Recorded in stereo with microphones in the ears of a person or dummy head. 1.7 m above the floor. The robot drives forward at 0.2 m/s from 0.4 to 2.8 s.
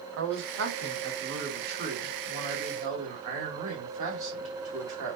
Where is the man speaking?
65° right (ahead or behind), 0.8 m; by 5.2 s 40° right (ahead or behind), 1.0 m.